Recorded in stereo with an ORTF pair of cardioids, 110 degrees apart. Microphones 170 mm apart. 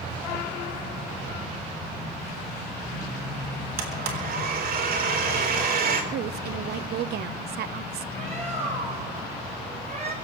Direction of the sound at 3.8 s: 60° right.